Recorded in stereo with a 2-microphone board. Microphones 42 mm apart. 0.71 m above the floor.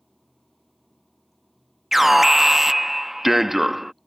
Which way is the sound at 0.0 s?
5° left (ahead or behind).